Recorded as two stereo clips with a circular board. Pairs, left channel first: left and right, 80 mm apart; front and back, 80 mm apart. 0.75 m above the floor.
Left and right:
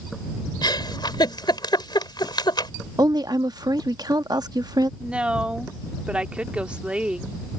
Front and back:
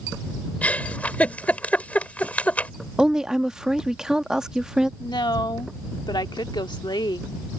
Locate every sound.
0.6 s a giggle: 70° left
3.0 s a woman speaking: 100° right
5.0 s a woman speaking: 15° right